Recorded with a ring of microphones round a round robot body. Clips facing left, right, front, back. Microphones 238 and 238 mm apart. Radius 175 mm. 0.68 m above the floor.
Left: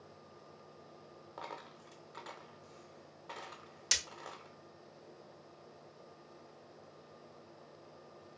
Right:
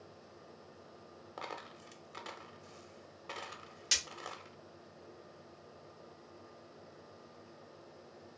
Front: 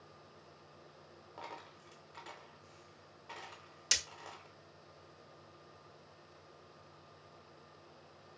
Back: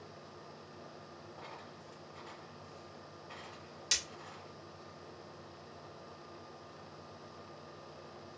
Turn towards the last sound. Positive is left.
turn(degrees=55)